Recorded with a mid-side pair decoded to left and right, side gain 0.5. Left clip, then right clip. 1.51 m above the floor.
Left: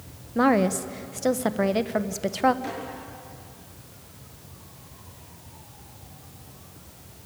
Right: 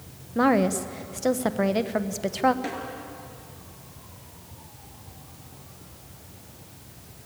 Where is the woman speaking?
5° left, 1.0 m.